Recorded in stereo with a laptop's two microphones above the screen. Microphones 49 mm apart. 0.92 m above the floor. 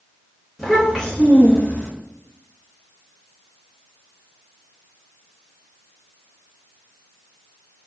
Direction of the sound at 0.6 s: Centre (ahead or behind).